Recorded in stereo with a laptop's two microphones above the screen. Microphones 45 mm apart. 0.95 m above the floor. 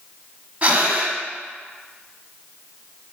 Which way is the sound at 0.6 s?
30° right (ahead or behind).